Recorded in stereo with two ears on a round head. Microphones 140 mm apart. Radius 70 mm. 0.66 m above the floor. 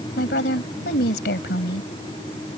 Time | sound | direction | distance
0.2 | a woman speaking | 75° left (ahead or behind) | ?